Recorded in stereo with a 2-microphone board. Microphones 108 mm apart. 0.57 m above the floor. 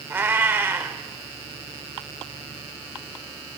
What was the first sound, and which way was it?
A cat meowing, 20° right (ahead or behind).